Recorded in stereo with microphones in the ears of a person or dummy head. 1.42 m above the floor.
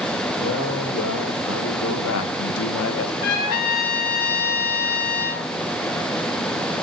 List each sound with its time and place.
0.4 s a man speaking: 65° left (ahead or behind), 3 m; by 3.1 s 60° left (ahead or behind), 1.4 m
3.2 s a trumpet: 45° left (ahead or behind), 2.5 m